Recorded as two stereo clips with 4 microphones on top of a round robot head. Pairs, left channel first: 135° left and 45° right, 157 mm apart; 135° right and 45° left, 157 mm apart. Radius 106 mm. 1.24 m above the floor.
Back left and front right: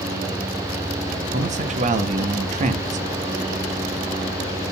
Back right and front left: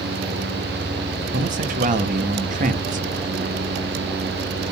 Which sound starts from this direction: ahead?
A man speaking, at 1.3 s.